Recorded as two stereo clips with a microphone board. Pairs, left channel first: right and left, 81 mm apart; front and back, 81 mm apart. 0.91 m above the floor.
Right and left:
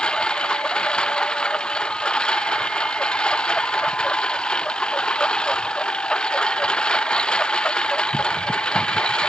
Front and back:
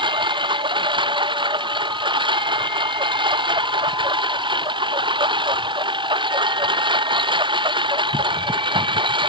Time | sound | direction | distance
0.0 | a lawn mower | 170° right | ?